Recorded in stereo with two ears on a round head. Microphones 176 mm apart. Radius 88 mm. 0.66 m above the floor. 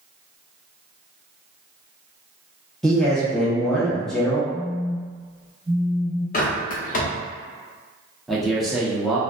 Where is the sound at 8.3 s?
Centre (ahead or behind), 0.6 m.